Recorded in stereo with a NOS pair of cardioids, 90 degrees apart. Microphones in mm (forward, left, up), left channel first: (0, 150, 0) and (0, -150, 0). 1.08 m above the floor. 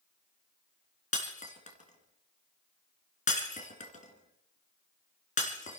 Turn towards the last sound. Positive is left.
turn(degrees=25)